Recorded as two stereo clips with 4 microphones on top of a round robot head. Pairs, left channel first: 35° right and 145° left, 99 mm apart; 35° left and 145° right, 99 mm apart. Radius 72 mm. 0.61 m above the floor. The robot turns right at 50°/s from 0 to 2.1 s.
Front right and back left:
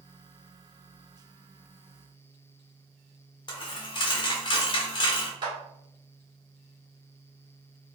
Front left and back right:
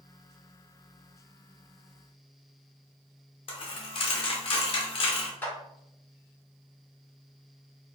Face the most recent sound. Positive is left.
turn(degrees=105)